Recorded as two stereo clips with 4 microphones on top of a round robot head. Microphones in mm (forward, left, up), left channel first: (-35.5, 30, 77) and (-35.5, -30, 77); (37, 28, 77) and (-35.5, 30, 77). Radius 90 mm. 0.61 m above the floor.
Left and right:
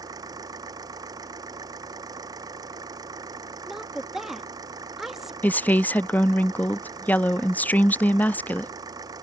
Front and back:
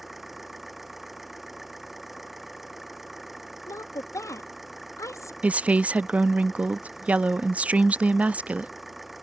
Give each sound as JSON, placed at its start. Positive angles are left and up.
{"t": 0.0, "sound": "an engine running", "azimuth_deg": -95}
{"t": 3.7, "sound": "a woman speaking", "azimuth_deg": -10}
{"t": 5.4, "sound": "a woman speaking", "azimuth_deg": 120}